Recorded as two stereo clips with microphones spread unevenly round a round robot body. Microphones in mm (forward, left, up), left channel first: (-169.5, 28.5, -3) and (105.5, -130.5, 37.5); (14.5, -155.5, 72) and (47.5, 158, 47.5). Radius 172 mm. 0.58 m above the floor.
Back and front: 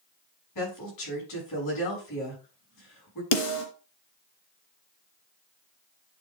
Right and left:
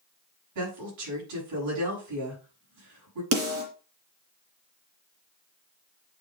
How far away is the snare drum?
About 2.5 m.